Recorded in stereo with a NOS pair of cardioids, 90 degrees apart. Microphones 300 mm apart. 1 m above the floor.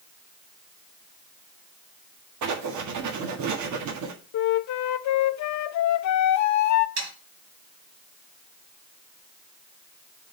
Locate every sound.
2.4 s writing: 70° right, 1.5 m
4.3 s a flute: 65° left, 0.6 m
7.0 s sawing: 70° right, 3 m